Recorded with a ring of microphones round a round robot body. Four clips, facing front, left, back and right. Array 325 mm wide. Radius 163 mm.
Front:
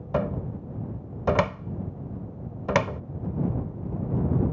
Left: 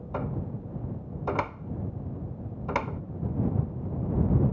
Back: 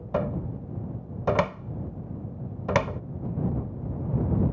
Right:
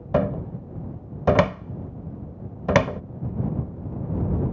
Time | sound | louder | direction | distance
0.1 | a cupboard door | right 10 dB, front 1 dB | 85° right | ?